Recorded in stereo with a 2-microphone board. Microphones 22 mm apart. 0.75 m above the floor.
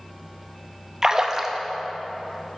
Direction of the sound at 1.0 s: 30° right (ahead or behind).